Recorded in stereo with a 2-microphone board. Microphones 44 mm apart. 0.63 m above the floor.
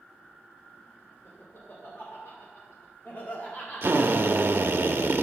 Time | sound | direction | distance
1.2 | laughter | 70° left (ahead or behind) | 2.5 m
3.8 | a drill | 55° right (ahead or behind) | 0.6 m